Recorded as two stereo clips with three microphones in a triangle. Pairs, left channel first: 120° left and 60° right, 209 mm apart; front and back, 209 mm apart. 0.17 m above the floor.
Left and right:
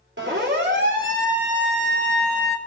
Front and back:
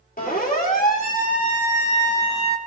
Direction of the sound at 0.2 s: 45° right.